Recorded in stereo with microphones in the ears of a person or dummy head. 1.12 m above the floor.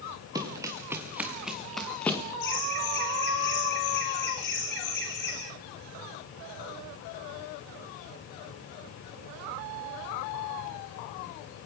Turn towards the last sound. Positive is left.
turn(degrees=50)  # may be behind; listen again after turning